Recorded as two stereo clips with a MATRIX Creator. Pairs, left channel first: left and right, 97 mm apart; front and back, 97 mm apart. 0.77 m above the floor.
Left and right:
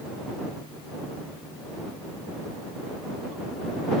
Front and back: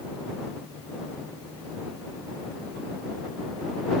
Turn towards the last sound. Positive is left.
No sound to turn to.